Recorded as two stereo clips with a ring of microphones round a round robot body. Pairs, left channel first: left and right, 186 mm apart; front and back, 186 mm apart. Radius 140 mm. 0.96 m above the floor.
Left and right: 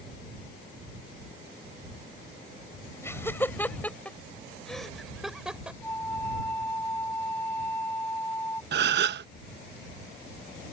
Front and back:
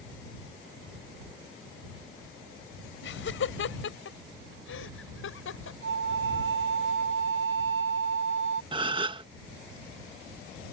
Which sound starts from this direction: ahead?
Laughter, at 3.0 s.